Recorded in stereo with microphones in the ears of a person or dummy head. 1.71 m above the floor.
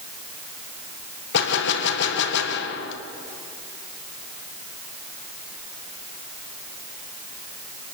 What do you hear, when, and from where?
1.3 s a gunshot: 70° left (ahead or behind), 1.7 m